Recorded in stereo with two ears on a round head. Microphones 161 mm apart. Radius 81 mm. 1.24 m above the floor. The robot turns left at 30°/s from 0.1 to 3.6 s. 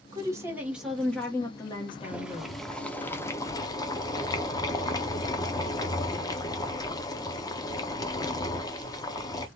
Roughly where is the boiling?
Behind.